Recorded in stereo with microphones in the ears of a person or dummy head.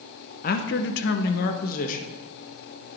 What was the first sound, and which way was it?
A man speaking, 35° left (ahead or behind).